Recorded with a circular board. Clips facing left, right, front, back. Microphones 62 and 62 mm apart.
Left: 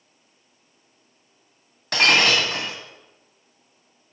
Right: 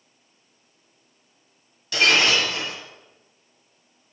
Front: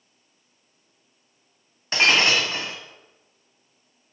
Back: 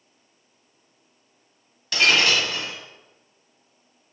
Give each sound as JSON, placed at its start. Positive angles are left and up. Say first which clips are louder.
{"t": 1.9, "sound": "breaking glass", "louder": "left 1 dB, even", "azimuth_deg": 60, "distance_m": 2.5}